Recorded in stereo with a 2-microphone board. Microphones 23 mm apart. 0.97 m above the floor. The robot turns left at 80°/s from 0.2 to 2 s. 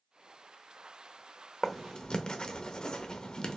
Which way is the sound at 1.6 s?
15° left (ahead or behind).